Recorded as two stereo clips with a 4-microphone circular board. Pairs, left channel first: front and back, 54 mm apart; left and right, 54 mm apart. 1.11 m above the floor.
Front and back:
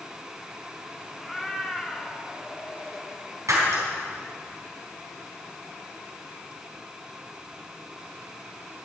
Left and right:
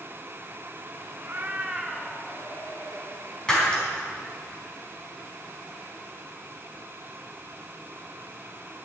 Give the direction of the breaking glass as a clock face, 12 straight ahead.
6 o'clock.